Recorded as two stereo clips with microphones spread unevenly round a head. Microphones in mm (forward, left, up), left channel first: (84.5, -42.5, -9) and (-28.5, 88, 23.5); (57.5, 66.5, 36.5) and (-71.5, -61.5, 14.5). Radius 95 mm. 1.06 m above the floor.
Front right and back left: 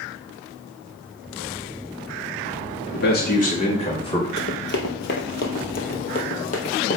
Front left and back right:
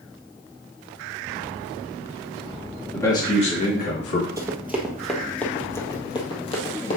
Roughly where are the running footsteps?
Ahead right.